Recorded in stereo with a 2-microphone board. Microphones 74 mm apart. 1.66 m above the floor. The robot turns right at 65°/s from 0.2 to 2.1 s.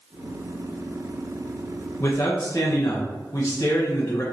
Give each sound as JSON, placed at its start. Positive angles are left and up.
{"t": 2.0, "sound": "a man speaking", "side_deg": 35, "distance_m": 0.9}